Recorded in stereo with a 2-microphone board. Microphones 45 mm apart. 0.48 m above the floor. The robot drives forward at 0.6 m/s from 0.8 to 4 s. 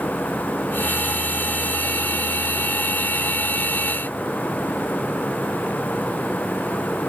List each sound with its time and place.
Only background noise.